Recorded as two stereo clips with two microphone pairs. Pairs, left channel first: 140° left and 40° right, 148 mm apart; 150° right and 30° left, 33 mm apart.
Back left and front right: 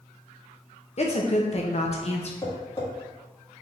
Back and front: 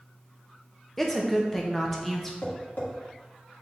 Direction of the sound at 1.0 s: 130° left.